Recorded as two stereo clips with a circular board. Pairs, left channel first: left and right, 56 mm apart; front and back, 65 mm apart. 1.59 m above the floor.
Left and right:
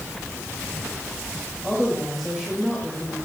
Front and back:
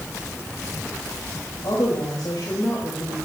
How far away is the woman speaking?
About 3.5 m.